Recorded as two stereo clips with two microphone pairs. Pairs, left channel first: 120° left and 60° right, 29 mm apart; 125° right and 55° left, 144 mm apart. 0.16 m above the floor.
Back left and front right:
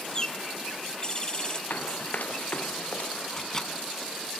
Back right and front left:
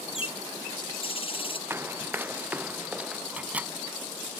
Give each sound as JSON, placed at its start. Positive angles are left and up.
{"t": 0.1, "sound": "a bird", "azimuth_deg": -175}
{"t": 1.7, "sound": "running footsteps", "azimuth_deg": 130}
{"t": 3.3, "sound": "a microwave", "azimuth_deg": 115}